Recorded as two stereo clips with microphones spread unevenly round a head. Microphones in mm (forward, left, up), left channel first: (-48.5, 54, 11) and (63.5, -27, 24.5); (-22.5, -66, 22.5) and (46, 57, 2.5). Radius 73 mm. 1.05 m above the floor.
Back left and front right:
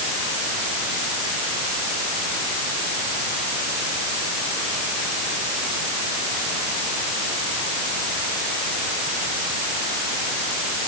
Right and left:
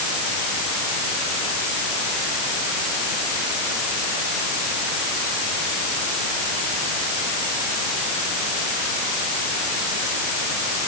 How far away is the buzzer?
I don't hear a buzzer.